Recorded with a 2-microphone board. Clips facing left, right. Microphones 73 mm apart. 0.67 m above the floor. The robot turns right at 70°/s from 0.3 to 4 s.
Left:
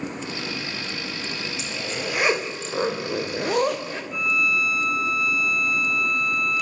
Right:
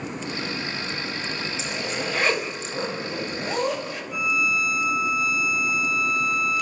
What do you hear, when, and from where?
1.6 s a zipper: 30° right, 3 m; by 4.0 s 140° left, 3 m
4.1 s a violin: 5° right (ahead or behind), 0.8 m